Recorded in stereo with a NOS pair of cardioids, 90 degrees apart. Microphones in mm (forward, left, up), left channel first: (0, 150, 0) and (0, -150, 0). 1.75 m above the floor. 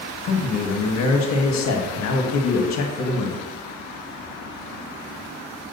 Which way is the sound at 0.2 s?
65° left.